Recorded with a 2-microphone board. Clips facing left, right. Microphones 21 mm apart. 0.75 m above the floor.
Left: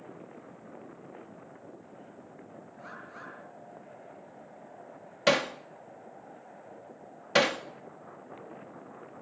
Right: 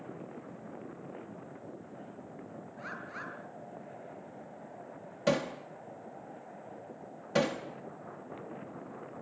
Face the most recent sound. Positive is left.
turn(degrees=55)  # may be behind; listen again after turning